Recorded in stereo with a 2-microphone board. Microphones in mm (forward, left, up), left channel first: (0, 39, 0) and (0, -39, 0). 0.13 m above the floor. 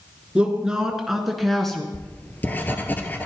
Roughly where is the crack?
No crack in this recording.